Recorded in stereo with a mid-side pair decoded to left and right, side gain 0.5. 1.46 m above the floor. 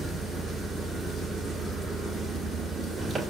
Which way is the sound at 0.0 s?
40° right.